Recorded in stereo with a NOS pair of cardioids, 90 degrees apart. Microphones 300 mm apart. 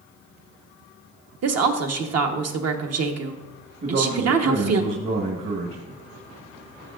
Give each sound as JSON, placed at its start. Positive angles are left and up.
{"t": 1.4, "sound": "a woman speaking", "azimuth_deg": -55, "distance_m": 1.3}
{"t": 3.8, "sound": "a man speaking", "azimuth_deg": -45, "distance_m": 1.8}